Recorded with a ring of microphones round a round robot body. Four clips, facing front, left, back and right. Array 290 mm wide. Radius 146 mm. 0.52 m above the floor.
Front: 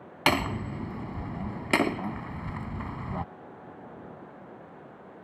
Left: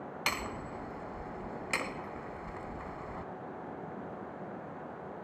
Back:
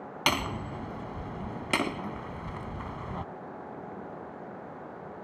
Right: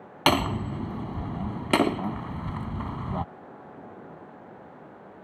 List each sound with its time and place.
0.3 s hammering: 70° right